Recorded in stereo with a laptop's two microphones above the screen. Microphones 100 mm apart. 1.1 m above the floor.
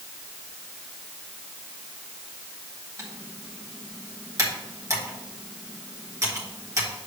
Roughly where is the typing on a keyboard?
Right.